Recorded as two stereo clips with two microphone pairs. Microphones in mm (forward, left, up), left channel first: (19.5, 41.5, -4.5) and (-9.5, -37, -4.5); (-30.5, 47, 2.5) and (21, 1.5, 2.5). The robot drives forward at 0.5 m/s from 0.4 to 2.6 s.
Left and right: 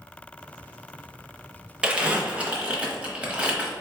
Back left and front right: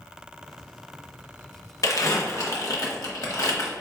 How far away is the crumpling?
About 0.7 m.